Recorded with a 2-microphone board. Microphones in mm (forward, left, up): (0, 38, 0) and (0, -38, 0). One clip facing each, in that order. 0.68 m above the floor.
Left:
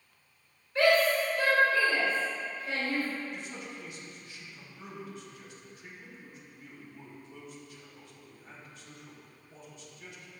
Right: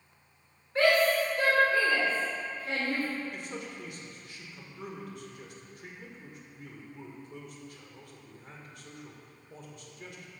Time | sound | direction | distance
0.8 | a shout | 35° right (ahead or behind) | 2.5 m
3.3 | a man speaking | 55° right (ahead or behind) | 1.5 m